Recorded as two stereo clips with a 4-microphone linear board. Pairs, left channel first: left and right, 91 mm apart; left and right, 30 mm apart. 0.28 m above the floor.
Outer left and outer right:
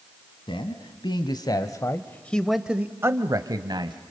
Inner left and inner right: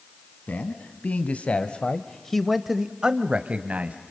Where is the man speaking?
65° left (ahead or behind), 1.9 m; by 4.0 s 55° right (ahead or behind), 1.5 m.